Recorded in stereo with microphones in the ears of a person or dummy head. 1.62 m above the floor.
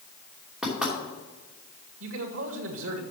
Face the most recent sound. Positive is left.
turn(degrees=-80)